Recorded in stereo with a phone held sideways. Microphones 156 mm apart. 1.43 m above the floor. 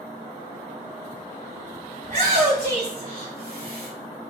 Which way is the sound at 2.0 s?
55° right (ahead or behind).